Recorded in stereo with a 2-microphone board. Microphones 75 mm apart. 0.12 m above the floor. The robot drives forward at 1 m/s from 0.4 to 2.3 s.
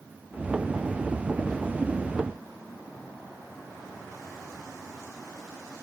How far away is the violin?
No violin in this recording.